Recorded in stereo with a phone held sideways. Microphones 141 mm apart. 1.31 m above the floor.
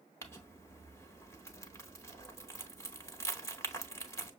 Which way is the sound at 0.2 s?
20° left (ahead or behind).